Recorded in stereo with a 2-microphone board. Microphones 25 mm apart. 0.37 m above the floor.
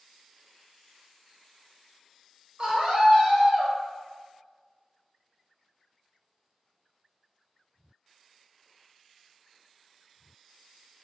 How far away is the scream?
About 1.7 m.